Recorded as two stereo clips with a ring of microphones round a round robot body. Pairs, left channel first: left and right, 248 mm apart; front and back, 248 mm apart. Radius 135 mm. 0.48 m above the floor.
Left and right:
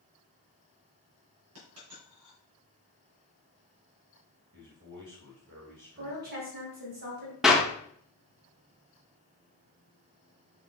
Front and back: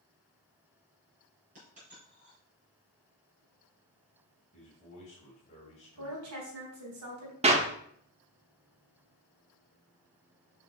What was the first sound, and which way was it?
A dropped coin, 115° right.